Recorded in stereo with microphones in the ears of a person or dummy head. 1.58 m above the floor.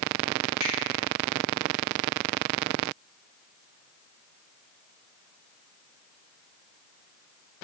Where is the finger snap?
50° left (ahead or behind), 4.5 m.